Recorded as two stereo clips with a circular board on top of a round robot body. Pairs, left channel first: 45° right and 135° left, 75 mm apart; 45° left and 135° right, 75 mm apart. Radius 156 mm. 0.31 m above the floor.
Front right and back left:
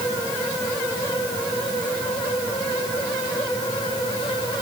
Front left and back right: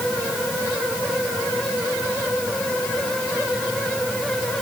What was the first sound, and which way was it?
Only background noise.